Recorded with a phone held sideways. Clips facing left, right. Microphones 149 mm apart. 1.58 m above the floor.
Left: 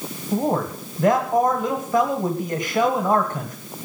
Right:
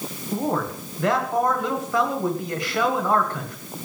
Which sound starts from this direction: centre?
A man speaking, at 0.3 s.